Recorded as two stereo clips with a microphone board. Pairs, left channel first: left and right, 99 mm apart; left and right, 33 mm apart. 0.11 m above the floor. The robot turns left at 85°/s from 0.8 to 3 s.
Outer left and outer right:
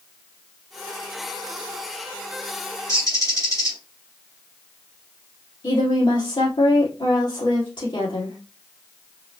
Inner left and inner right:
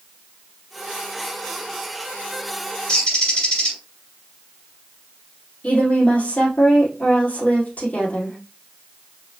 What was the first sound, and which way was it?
A bird, 35° left (ahead or behind).